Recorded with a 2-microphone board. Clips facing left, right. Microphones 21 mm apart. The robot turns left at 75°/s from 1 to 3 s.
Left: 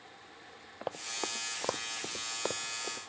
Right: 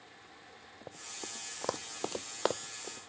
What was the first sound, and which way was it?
Running footsteps, 75° left (ahead or behind).